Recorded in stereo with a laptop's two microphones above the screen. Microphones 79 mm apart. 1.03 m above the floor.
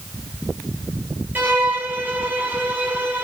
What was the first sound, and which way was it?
A violin, 25° right (ahead or behind).